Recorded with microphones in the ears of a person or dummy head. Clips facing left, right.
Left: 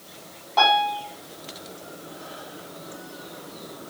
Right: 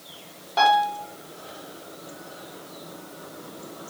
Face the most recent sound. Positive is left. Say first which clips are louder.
# right 1 dB
turn(degrees=-25)  # may be behind; listen again after turning